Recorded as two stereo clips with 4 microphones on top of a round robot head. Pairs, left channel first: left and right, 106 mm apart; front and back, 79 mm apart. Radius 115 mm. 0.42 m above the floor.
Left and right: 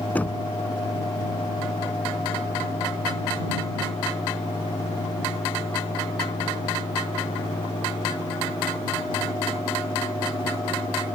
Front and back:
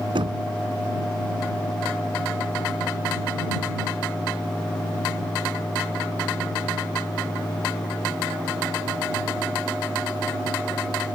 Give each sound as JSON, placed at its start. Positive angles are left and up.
{"t": 0.1, "sound": "knocking", "azimuth_deg": 165}